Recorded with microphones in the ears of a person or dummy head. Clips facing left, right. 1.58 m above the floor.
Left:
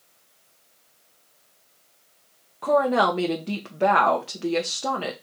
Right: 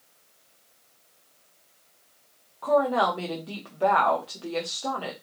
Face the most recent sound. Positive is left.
turn(degrees=30)  # may be behind; listen again after turning